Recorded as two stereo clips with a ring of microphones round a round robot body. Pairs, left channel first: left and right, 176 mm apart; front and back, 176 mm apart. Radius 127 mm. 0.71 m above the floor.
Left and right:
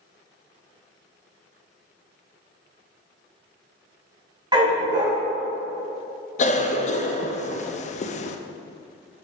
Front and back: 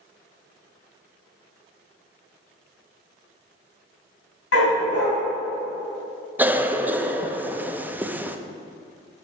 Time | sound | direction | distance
4.5 | a dog barking | 25° right | 2 m
6.4 | a cough | 105° left | 0.5 m